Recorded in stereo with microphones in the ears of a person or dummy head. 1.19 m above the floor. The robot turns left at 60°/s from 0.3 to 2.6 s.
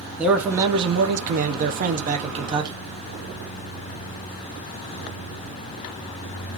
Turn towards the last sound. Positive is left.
turn(degrees=-145)